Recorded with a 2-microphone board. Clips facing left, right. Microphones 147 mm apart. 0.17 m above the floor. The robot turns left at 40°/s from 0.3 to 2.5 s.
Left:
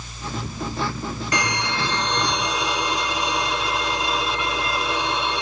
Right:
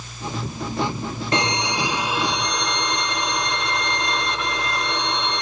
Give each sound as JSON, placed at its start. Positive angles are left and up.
{"t": 1.3, "sound": "a violin", "azimuth_deg": -140, "distance_m": 0.6}